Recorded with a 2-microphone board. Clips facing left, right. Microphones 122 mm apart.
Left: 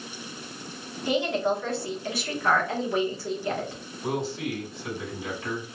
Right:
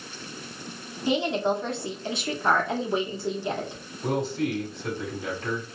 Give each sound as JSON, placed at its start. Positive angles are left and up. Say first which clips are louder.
{"t": 1.1, "sound": "a woman speaking", "louder": "right 1 dB", "side_deg": -25, "distance_m": 1.0}
{"t": 4.0, "sound": "a man speaking", "louder": "right 3 dB", "side_deg": -45, "distance_m": 1.9}